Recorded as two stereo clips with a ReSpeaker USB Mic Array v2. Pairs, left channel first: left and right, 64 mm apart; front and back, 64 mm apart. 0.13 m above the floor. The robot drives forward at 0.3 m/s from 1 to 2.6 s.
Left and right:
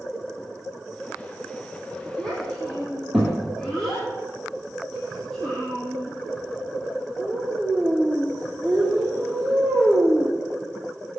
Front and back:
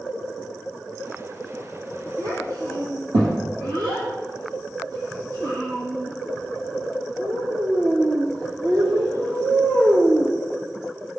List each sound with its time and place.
2.2 s a child speaking: 175° left, 3 m